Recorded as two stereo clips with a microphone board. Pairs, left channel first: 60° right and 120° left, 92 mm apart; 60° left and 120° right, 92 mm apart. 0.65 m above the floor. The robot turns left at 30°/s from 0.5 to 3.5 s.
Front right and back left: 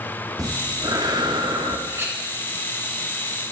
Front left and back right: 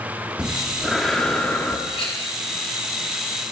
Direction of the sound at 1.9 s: 65° left.